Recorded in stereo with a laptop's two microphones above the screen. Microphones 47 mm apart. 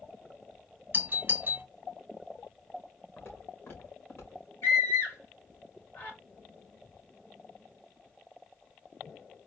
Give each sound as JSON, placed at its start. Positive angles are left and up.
{"t": 0.9, "sound": "a doorbell", "side_deg": -40, "distance_m": 0.9}
{"t": 3.2, "sound": "footsteps", "side_deg": 60, "distance_m": 2.5}
{"t": 4.6, "sound": "a scream", "side_deg": 55, "distance_m": 1.8}